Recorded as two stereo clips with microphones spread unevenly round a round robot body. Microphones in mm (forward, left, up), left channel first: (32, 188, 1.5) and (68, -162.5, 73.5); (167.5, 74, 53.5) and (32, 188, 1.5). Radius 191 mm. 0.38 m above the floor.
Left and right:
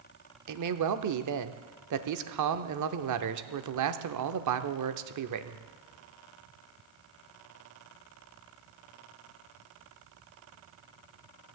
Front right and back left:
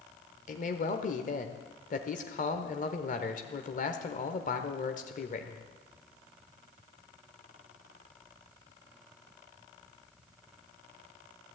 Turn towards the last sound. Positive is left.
turn(degrees=-85)